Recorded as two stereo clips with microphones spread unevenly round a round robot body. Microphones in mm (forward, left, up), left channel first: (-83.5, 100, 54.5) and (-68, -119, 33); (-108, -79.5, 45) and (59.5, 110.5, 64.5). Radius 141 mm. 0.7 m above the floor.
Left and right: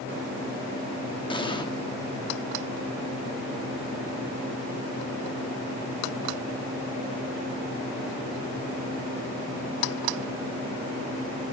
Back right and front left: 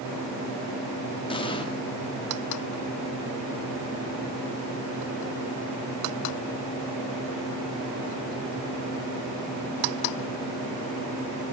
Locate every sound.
1.3 s an explosion: 165° left, 1.8 m